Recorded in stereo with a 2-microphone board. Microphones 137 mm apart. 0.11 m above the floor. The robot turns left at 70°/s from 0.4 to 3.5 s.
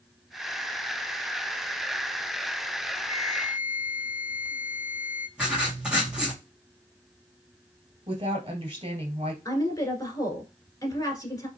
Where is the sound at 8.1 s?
50° right (ahead or behind), 1.8 m.